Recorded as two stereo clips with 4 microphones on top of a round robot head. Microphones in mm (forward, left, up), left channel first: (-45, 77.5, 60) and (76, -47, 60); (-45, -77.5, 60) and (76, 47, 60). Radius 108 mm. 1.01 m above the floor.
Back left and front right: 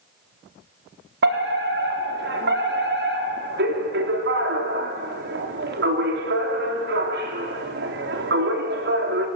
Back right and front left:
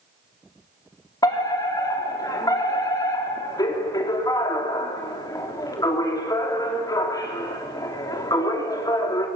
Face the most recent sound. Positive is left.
turn(degrees=-65)